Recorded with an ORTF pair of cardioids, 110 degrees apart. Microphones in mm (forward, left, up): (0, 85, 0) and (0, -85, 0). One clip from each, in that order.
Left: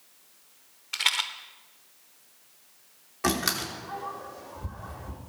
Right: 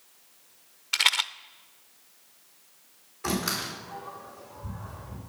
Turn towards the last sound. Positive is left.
turn(degrees=65)